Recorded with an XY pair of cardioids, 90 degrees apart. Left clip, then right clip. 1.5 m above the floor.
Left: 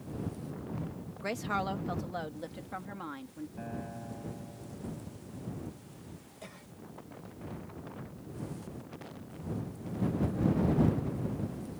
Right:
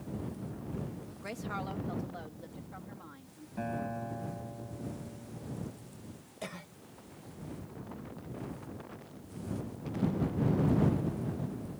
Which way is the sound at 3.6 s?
50° right.